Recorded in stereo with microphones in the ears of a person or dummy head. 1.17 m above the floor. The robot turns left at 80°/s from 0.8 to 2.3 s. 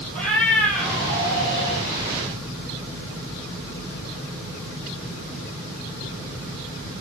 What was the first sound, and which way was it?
A cat meowing, 175° left.